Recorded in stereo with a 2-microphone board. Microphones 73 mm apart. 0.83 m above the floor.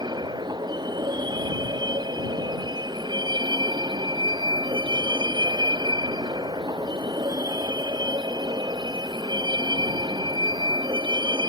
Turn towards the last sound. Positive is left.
turn(degrees=-80)